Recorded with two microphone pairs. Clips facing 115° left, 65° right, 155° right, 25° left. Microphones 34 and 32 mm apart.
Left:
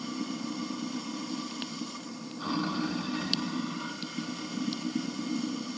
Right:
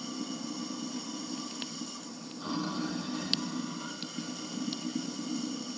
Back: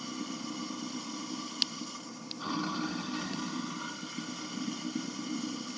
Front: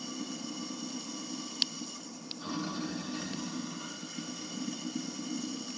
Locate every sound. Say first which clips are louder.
0.0 s running water: left 3 dB, back 1 dB; 155° left, 1.5 m